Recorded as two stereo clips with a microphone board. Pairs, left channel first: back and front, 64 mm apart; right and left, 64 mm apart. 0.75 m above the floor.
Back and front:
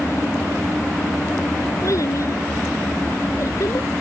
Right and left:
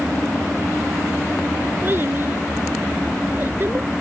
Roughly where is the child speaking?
Behind left.